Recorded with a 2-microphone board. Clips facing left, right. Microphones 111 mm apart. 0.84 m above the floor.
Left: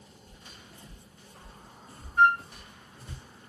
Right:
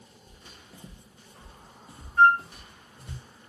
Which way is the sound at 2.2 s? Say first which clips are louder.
Right 3 dB; 20° left (ahead or behind).